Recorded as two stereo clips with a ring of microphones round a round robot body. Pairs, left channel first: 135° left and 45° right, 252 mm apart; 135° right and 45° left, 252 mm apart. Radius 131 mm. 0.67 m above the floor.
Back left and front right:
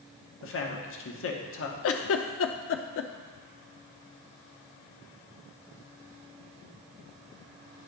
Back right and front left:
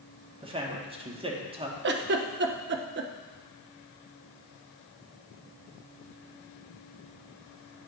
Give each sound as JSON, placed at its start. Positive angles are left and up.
{"t": 0.4, "sound": "a man speaking", "azimuth_deg": 110, "distance_m": 1.1}
{"t": 1.8, "sound": "a giggle", "azimuth_deg": 95, "distance_m": 0.5}